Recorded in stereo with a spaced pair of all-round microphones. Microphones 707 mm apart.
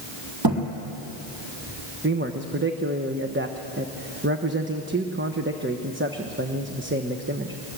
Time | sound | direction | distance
0.4 | a thud | 30° right (ahead or behind) | 3 m
2.0 | a man speaking | 15° right (ahead or behind) | 1.1 m